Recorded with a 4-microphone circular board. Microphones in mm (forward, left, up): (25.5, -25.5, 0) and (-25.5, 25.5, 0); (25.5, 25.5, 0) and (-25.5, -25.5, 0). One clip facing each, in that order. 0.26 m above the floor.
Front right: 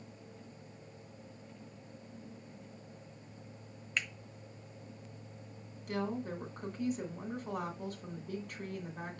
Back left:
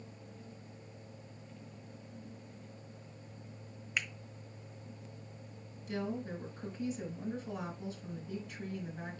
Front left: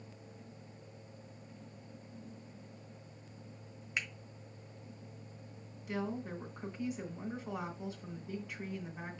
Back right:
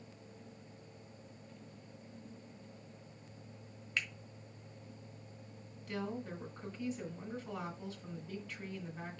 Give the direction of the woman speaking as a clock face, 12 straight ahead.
1 o'clock.